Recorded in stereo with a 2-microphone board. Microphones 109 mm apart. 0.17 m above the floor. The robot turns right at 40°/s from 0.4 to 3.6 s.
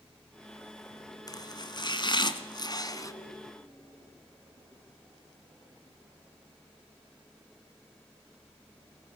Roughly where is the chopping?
Ahead left.